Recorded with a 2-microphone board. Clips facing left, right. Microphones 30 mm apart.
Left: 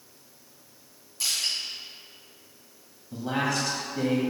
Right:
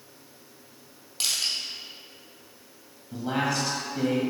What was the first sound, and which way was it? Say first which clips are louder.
Crushing: right 1 dB; 70° right (ahead or behind).